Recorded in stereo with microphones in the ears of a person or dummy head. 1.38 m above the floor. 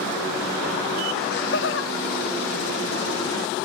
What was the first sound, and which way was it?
Laughter, 45° left (ahead or behind).